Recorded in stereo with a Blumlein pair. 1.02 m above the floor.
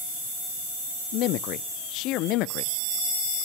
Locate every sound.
1.1 s a man speaking: 40° left, 0.6 m